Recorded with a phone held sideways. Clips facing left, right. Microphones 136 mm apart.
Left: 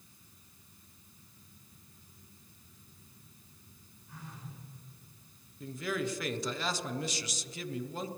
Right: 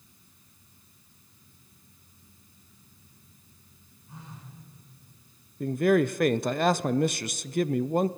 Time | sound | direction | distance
4.1 | a phone buzzing | 25° right (ahead or behind) | 6 m
5.6 | a man speaking | 55° right (ahead or behind) | 0.6 m